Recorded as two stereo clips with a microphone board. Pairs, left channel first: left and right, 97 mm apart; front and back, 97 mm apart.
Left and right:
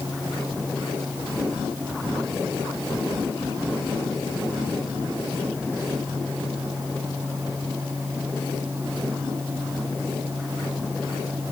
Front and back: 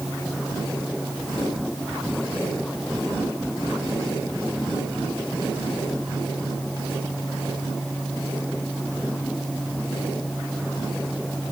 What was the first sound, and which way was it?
Only background noise.